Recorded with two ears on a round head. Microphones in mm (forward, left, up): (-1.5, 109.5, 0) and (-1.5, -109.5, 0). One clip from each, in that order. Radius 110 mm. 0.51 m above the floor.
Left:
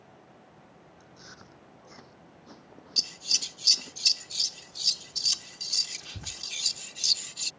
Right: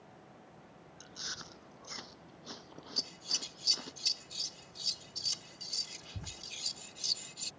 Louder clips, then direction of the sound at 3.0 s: Left 9 dB; 35° left (ahead or behind).